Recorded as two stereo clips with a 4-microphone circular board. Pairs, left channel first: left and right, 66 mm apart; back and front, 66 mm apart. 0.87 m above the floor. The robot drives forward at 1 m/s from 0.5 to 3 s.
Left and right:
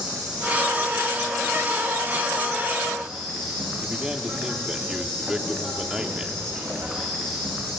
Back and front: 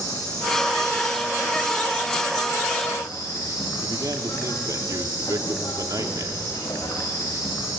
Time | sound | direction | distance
0.0 | an insect | 165° right | 6 m
3.8 | a man speaking | 10° right | 2.5 m